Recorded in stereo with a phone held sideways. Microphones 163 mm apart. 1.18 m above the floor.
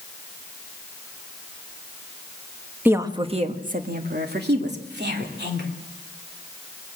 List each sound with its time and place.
2.9 s a woman speaking: 10° right (ahead or behind), 1.4 m; by 5.7 s 90° right, 3.5 m